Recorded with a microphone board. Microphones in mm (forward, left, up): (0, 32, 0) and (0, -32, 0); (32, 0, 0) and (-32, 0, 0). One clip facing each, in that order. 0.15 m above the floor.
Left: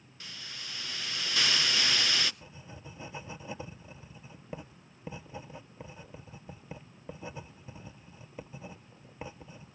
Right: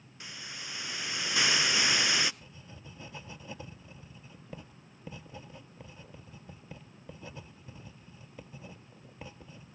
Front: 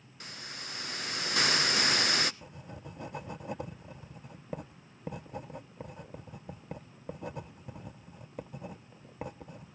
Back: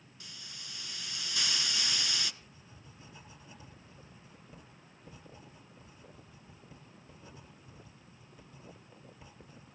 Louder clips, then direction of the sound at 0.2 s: Right 1 dB, front 8 dB; 20° right.